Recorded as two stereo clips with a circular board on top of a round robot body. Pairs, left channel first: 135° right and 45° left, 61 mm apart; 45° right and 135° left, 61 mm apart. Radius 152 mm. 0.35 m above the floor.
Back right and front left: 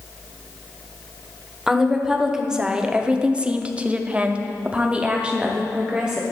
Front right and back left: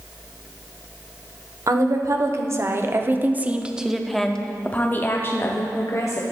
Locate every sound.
1.7 s a woman speaking: 125° left, 1.7 m; by 6.2 s 30° right, 1.6 m